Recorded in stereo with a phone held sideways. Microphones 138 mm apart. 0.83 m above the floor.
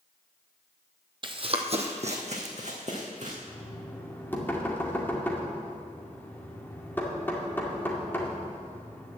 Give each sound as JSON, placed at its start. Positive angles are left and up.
{"t": 1.2, "sound": "running footsteps", "side_deg": -40, "distance_m": 1.1}
{"t": 3.5, "sound": "knocking", "side_deg": 15, "distance_m": 2.0}